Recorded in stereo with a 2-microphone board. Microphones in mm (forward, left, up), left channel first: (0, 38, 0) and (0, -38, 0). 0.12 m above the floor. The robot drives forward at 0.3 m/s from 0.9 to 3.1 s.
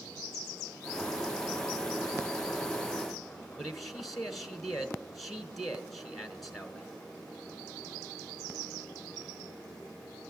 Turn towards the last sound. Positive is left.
turn(degrees=0)  # may be behind; listen again after turning